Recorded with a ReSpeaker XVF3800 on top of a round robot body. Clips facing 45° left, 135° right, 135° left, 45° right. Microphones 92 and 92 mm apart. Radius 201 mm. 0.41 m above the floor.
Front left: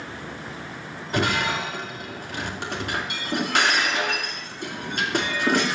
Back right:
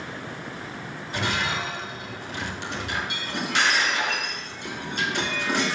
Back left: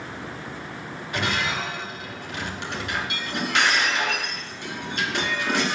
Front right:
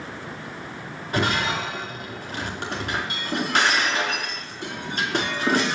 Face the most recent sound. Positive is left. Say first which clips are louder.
# front left 4 dB, front right 3 dB
turn(degrees=5)